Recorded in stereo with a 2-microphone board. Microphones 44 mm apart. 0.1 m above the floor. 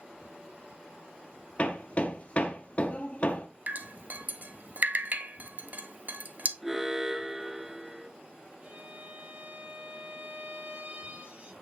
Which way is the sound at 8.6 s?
40° right (ahead or behind).